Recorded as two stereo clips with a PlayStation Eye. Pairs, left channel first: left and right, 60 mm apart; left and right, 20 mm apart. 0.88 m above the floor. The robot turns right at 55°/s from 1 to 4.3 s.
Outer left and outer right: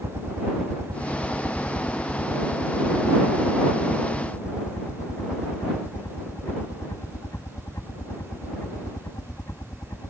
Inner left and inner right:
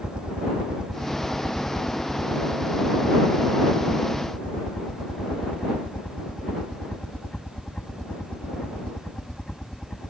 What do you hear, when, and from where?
0.0 s a helicopter: 50° right (ahead or behind); by 10.1 s 55° left (ahead or behind)